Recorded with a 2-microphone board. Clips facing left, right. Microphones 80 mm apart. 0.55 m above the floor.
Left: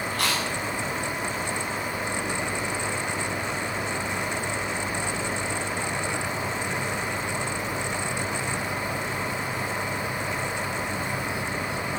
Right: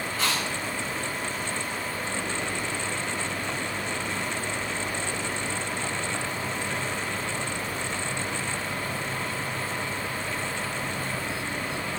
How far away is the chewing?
About 4.5 m.